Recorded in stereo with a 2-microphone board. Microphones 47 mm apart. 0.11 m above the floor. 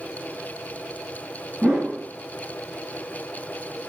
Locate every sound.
1.6 s a whoosh: 25° right (ahead or behind), 8 m